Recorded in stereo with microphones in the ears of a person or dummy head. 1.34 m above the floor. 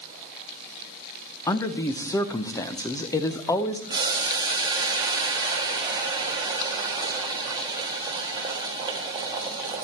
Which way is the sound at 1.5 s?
15° left (ahead or behind).